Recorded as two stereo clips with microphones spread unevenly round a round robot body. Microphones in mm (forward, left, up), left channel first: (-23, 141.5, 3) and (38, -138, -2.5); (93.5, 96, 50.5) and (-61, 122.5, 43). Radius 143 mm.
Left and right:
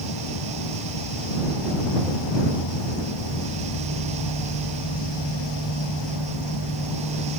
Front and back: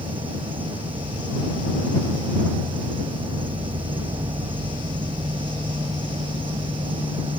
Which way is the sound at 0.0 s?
115° left.